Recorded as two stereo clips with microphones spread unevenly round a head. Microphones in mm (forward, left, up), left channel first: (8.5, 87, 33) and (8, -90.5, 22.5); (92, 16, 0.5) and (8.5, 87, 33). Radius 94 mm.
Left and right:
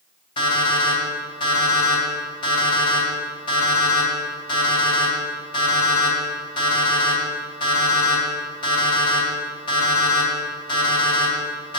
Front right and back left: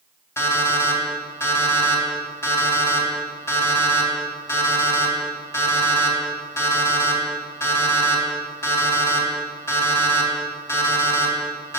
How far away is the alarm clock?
About 3 m.